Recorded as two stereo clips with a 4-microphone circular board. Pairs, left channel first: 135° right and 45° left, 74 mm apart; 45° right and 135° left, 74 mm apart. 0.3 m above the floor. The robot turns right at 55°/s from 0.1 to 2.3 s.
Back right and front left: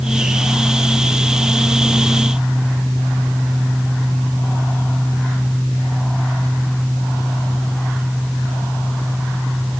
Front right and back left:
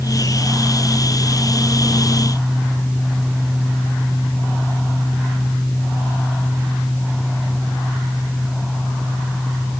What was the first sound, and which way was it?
Only background noise.